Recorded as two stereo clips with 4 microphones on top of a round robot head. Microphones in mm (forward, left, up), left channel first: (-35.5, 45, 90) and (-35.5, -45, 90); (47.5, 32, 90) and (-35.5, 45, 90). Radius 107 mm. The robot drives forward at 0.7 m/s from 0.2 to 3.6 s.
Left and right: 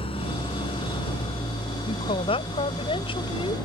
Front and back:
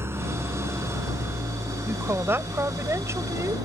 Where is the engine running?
110° left; by 3.6 s 125° left.